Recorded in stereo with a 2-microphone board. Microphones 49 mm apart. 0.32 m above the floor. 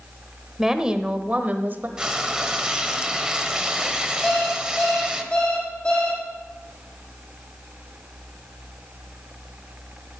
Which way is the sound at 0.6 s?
10° right (ahead or behind).